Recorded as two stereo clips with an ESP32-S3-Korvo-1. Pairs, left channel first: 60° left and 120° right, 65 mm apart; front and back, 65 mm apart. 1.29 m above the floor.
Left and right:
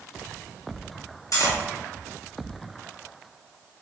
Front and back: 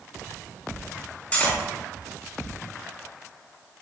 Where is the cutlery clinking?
65° left, 1.1 m.